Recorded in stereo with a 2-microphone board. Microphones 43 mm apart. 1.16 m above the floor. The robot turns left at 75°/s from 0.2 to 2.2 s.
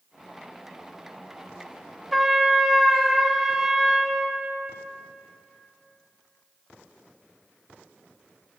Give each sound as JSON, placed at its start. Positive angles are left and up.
{"t": 2.1, "sound": "a trumpet", "side_deg": 0, "distance_m": 0.6}